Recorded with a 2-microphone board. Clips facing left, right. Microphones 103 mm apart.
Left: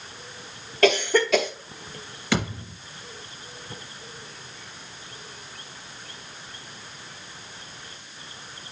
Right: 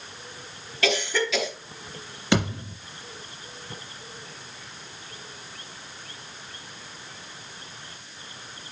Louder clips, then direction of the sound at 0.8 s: Left 6 dB; 50° left (ahead or behind).